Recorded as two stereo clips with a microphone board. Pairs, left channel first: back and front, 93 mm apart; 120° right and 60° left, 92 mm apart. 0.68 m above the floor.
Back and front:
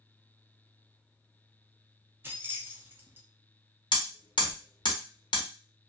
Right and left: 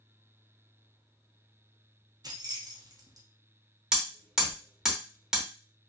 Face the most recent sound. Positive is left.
turn(degrees=145)